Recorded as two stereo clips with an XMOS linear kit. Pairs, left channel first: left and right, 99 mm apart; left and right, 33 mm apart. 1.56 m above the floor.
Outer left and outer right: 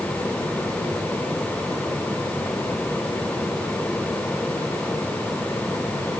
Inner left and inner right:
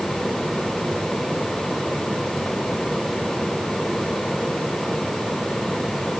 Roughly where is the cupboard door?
I don't hear a cupboard door.